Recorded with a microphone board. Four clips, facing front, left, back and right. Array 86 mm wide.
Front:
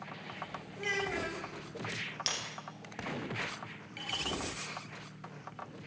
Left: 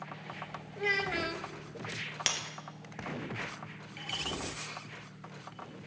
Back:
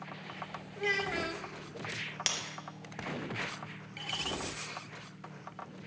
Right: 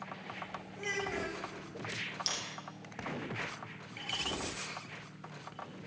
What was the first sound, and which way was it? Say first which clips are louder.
A child speaking: left 5 dB, back 2 dB; 115° left.